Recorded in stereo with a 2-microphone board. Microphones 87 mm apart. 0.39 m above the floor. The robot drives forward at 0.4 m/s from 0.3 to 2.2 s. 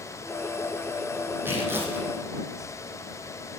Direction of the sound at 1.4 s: 25° right (ahead or behind).